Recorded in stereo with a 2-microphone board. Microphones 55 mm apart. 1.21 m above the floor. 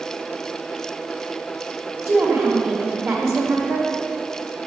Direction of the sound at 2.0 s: 45° right (ahead or behind).